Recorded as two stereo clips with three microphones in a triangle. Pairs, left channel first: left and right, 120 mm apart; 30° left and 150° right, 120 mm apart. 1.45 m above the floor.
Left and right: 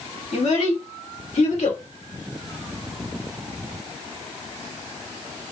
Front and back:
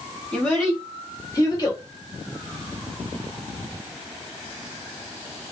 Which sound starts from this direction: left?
A child speaking, at 0.3 s.